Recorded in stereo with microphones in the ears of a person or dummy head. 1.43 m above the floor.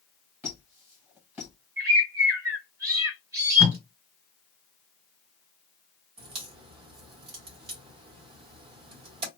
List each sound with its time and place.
0.4 s a squeak: 5° right (ahead or behind), 0.8 m
1.8 s a bird: 15° right (ahead or behind), 1.0 m
3.6 s tape being pulled: 40° right (ahead or behind), 1.7 m
6.2 s a crack: 30° right (ahead or behind), 1.2 m